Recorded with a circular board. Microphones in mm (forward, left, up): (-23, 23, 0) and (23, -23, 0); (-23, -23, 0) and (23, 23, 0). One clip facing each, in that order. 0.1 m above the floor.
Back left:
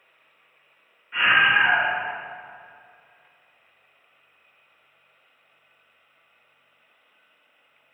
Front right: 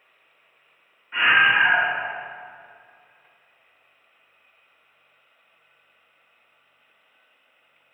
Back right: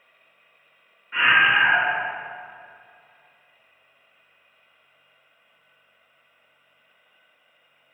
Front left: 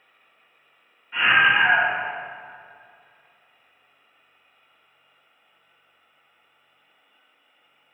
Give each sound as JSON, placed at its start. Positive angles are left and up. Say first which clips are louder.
{"t": 1.1, "sound": "a scream", "louder": "front right 1 dB, even", "azimuth_deg": -110, "distance_m": 1.7}